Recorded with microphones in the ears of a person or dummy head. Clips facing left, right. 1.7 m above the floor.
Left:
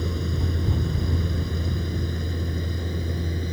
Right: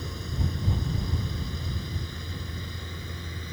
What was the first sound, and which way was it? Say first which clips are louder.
A vehicle: left 6 dB; 60° left (ahead or behind).